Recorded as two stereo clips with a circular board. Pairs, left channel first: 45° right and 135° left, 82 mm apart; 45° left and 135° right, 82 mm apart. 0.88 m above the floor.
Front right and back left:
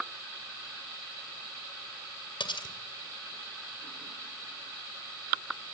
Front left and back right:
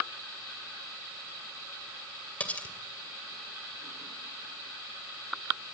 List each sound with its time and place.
2.4 s cutlery clinking: 30° right, 2 m